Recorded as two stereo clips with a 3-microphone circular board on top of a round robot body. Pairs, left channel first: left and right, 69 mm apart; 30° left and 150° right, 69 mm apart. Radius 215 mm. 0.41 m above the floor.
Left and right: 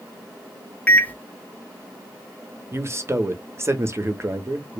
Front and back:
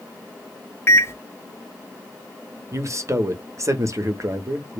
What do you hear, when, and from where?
0.9 s a microwave: 35° left, 0.7 m
2.7 s a man speaking: 130° right, 1.2 m